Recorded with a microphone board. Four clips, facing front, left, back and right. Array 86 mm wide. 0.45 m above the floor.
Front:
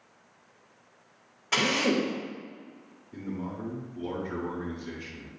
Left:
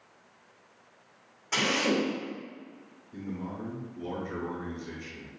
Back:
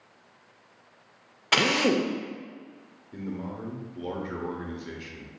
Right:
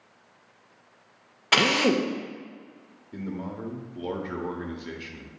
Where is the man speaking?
110° right, 0.9 m.